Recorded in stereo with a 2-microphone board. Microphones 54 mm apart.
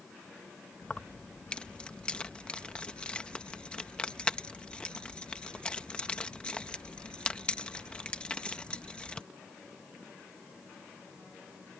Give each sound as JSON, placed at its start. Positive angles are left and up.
{"t": 0.8, "sound": "keys jangling", "side_deg": 20}